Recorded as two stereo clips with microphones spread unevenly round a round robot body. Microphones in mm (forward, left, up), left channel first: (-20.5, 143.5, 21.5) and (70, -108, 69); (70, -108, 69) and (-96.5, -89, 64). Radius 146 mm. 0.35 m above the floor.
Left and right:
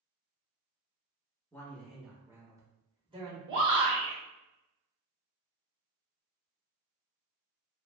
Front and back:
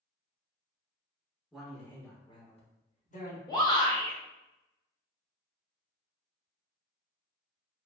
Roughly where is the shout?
Ahead right.